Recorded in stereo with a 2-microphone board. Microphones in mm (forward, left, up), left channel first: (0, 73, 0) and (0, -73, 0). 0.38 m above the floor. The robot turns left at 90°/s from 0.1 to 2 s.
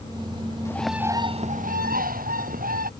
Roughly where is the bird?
Ahead.